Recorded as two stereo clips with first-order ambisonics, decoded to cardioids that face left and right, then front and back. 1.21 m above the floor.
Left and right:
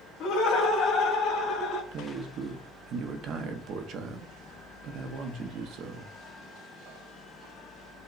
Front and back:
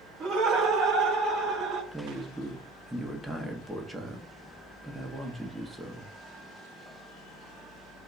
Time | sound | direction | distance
0.2 | laughter | 120° left | 0.9 m
1.9 | a man speaking | 95° right | 0.6 m